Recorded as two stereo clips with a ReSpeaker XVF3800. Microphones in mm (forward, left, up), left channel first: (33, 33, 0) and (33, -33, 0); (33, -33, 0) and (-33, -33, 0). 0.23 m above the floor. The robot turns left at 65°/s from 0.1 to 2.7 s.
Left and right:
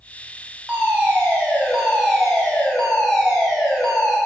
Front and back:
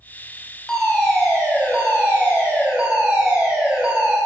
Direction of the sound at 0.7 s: 75° right.